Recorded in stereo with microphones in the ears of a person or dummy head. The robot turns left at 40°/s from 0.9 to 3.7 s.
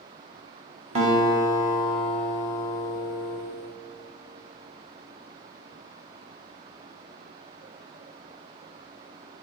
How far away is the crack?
I don't hear a crack.